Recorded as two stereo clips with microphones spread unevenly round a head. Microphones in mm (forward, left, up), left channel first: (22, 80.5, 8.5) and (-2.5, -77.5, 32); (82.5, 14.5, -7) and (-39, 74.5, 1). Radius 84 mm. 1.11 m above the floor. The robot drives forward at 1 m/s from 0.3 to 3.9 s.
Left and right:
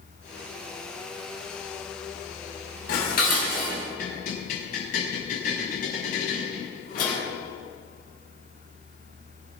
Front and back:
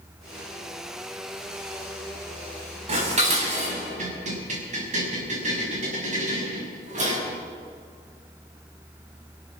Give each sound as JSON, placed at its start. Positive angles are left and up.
{"t": 2.9, "sound": "dishes clattering", "azimuth_deg": 115, "distance_m": 5.5}